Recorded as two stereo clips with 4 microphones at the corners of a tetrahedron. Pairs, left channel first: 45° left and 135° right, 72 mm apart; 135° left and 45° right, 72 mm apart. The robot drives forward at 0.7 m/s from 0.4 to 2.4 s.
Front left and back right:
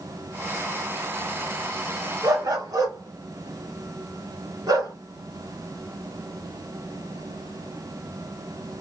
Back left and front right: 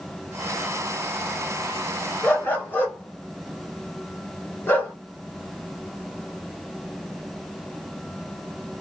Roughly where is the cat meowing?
No cat meowing in this recording.